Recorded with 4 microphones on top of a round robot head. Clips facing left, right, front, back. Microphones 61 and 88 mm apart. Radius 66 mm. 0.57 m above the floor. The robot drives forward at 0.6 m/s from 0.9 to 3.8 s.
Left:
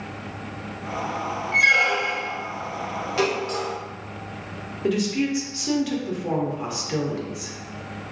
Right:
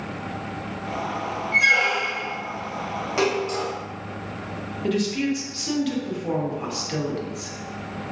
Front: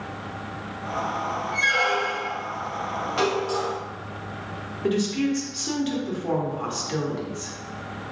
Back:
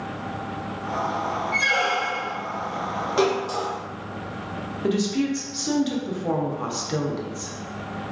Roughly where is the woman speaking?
Behind left.